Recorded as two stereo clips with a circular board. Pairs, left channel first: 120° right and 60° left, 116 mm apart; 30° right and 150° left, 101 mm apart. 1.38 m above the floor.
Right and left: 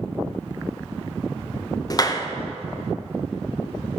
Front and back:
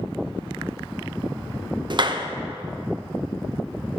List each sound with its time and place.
1.9 s a clap: 175° right, 0.7 m